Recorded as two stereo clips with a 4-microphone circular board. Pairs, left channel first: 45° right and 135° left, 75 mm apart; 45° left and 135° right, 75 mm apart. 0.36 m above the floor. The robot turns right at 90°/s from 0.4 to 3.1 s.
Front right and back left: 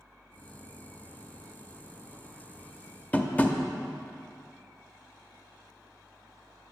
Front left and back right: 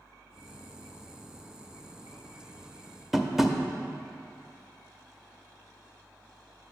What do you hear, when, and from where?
3.1 s tapping: 55° right, 0.5 m